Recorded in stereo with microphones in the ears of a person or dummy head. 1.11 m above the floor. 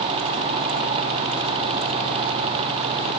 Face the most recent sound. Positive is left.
No sound to turn to.